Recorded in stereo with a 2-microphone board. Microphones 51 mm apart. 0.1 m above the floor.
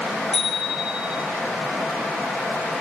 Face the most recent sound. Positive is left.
turn(degrees=0)  # may be behind; listen again after turning